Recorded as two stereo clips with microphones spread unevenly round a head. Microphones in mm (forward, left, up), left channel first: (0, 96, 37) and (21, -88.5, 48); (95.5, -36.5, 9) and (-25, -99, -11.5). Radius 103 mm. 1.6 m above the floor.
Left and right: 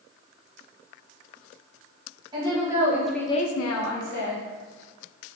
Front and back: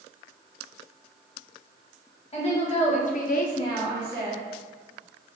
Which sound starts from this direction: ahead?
A woman speaking, at 2.3 s.